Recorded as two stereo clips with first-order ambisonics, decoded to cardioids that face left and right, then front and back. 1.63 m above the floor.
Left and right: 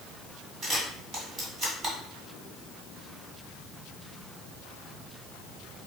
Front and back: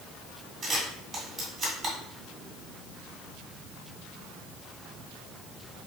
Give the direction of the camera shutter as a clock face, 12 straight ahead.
4 o'clock.